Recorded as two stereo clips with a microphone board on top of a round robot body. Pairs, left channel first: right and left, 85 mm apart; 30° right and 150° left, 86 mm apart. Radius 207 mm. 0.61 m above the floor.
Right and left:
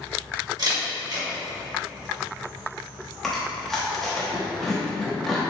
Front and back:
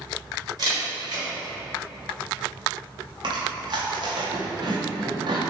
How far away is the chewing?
About 0.8 m.